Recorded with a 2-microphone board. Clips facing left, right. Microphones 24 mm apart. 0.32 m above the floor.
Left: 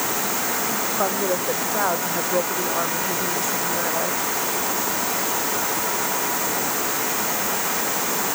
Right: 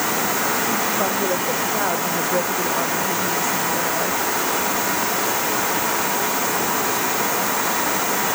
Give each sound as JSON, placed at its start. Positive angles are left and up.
{"t": 1.0, "sound": "a woman speaking", "side_deg": 15}